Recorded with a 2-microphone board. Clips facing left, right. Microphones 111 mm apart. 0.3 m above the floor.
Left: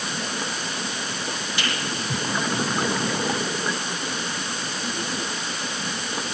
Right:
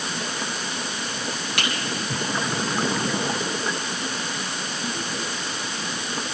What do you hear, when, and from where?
1.6 s a finger snap: 80° right, 8 m